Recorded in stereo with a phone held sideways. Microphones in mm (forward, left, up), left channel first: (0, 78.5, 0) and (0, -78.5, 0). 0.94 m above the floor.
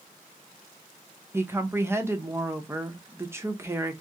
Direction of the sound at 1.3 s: 15° right (ahead or behind).